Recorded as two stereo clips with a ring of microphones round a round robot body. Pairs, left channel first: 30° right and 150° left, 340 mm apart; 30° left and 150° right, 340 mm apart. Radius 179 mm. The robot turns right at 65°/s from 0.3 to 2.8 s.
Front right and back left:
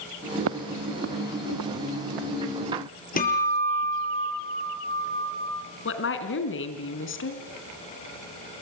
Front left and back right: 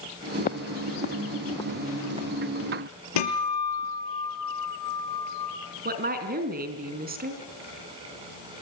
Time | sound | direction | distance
0.4 | footsteps | 100° left | 0.9 m
3.2 | a guitar | 35° left | 5.5 m
5.8 | a woman speaking | 85° right | 3.5 m